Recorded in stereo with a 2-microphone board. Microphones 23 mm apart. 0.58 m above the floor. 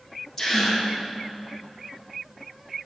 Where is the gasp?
20° left (ahead or behind), 3 m.